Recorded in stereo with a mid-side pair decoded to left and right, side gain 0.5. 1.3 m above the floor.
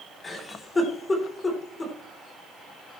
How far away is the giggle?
About 3.5 m.